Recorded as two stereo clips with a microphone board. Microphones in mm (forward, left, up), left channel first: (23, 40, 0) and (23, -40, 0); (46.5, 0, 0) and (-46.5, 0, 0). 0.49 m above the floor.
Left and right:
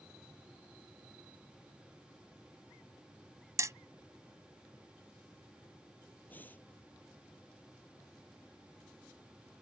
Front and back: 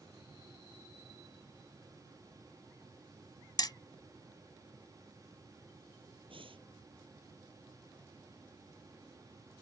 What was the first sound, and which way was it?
Hammering, 40° right.